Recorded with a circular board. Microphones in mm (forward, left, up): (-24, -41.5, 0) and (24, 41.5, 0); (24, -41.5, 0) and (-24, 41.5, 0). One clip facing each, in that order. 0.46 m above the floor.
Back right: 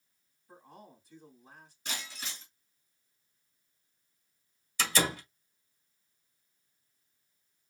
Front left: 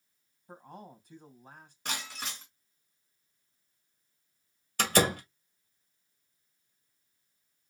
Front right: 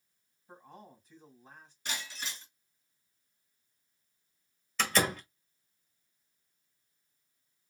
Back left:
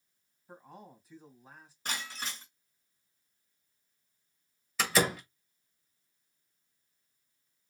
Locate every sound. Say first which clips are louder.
0.5 s a man speaking: front left 5 dB, back left 1 dB; 35° left, 3 m
1.9 s breaking glass: front left 4 dB, back left 2 dB; 75° left, 2.5 m
4.8 s a door slam: front left 5 dB, back left 1 dB; 35° left, 1.6 m